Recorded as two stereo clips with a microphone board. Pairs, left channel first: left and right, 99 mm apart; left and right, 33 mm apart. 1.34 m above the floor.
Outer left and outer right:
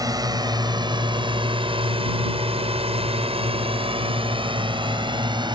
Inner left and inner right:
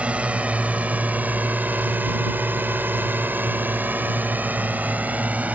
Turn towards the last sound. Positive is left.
turn(degrees=-50)  # may be behind; listen again after turning